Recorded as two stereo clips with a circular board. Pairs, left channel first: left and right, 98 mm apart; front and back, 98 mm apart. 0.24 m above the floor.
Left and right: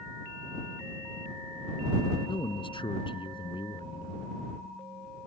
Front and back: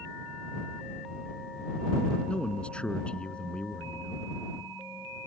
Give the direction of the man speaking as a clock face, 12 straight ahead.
9 o'clock.